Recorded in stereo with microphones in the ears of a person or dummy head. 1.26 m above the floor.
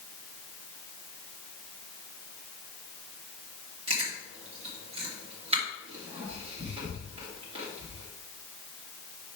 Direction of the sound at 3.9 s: 25° right (ahead or behind).